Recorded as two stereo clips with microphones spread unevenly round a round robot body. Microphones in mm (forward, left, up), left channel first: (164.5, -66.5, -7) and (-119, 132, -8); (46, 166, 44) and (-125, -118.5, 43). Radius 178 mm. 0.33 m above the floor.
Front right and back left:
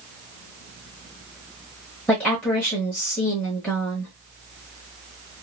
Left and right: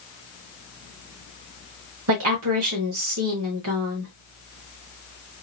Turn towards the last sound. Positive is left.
turn(degrees=-120)